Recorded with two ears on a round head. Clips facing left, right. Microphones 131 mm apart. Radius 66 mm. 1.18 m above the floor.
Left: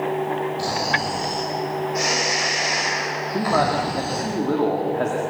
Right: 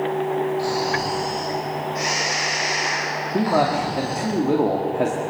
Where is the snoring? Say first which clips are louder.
Right 2 dB; 55° left (ahead or behind), 6 m.